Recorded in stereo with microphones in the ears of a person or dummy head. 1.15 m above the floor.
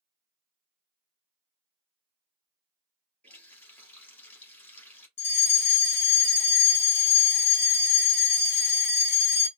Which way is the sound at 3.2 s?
10° left (ahead or behind).